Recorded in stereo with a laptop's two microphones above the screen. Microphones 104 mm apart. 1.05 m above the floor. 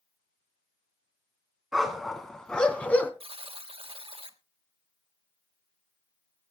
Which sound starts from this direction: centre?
A dog barking, at 1.7 s.